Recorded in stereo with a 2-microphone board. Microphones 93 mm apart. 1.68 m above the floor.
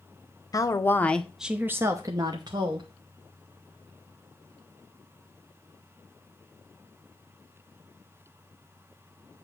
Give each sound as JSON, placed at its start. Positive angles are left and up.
{"t": 0.5, "sound": "a woman speaking", "side_deg": 40, "distance_m": 0.8}